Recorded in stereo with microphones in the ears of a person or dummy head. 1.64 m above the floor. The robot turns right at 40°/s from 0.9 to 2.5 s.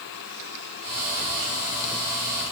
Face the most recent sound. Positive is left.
No sound to turn to.